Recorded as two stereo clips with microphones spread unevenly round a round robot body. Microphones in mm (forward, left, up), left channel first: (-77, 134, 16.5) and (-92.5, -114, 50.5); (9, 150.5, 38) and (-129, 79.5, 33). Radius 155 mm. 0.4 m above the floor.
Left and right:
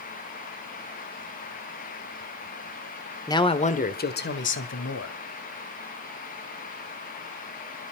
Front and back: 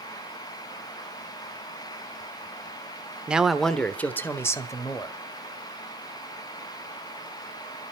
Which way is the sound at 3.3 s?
135° left.